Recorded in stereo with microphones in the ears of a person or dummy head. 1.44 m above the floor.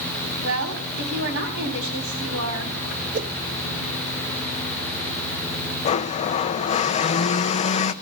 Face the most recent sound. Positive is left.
turn(degrees=40)  # may be behind; listen again after turning